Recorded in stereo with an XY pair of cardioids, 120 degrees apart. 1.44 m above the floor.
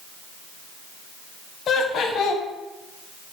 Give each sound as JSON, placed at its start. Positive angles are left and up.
{"t": 1.7, "sound": "laughter", "azimuth_deg": 55, "distance_m": 0.6}